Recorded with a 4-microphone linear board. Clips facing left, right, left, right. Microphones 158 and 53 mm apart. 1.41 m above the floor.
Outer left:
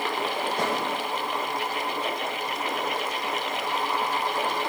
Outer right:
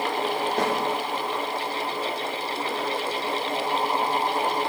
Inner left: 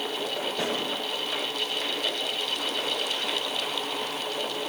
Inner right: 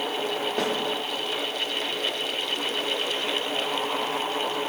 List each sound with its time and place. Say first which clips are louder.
0.6 s a snare drum: outer right 3 dB, inner right 3 dB; 65° right (ahead or behind), 5 m